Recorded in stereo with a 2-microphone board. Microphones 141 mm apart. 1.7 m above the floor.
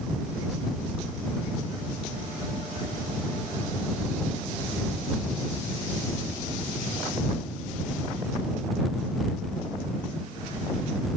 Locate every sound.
Only background noise.